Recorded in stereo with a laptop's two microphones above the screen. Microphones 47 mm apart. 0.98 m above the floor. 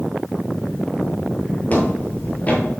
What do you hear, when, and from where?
1.7 s footsteps: 35° left (ahead or behind), 1.4 m